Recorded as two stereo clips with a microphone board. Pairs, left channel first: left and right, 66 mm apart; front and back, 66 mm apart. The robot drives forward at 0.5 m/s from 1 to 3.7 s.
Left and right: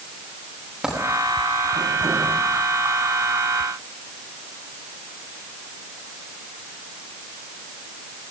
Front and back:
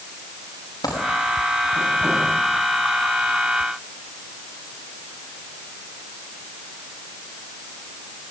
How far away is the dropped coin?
About 9.5 m.